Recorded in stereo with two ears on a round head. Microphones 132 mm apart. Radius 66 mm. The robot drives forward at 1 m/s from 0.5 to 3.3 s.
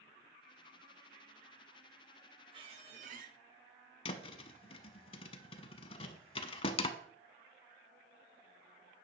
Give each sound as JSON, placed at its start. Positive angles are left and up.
{"t": 2.5, "sound": "a squeak", "side_deg": -35, "distance_m": 1.4}
{"t": 4.0, "sound": "a thud", "side_deg": 40, "distance_m": 0.7}